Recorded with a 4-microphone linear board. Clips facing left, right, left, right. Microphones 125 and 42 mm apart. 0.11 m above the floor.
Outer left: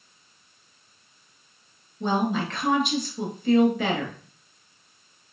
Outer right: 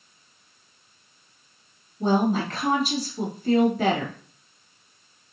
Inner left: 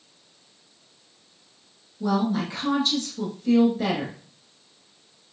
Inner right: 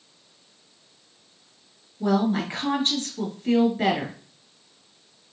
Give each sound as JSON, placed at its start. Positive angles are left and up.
{"t": 2.0, "sound": "a woman speaking", "side_deg": -40, "distance_m": 1.3}